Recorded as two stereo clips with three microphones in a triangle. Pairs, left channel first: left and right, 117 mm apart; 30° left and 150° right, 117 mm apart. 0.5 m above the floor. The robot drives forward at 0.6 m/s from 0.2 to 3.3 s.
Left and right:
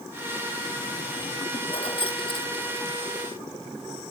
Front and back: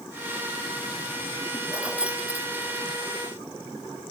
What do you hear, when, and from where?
1.7 s keys jangling: 130° left; by 2.9 s 135° left